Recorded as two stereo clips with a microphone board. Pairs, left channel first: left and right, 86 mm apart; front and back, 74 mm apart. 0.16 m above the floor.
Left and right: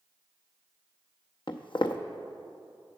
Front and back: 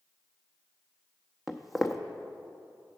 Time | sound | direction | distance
1.5 | footsteps | 90° left | 0.5 m